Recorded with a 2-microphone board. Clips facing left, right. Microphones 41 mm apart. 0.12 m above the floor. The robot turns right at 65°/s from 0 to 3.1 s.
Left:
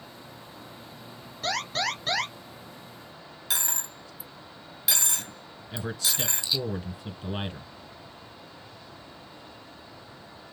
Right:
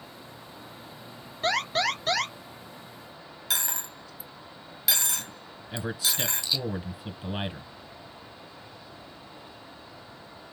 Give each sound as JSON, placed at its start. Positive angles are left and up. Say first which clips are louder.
{"t": 1.4, "sound": "an alarm", "louder": "right 3 dB", "azimuth_deg": -45, "distance_m": 2.0}
{"t": 3.5, "sound": "a dropped coin", "louder": "right 1 dB", "side_deg": 0, "distance_m": 0.9}
{"t": 5.7, "sound": "a man speaking", "louder": "right 1 dB", "side_deg": -10, "distance_m": 1.2}